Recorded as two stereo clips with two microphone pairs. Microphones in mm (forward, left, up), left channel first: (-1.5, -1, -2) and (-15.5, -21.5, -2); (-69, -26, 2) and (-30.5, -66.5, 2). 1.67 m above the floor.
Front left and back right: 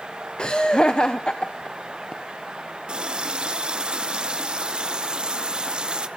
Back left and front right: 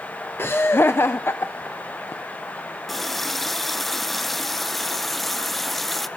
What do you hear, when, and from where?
0.4 s laughter: 95° left, 0.7 m
2.9 s a running tap: 140° right, 0.8 m